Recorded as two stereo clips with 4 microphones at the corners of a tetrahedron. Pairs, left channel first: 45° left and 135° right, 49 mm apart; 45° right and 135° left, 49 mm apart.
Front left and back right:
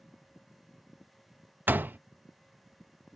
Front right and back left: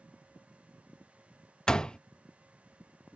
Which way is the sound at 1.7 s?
110° right.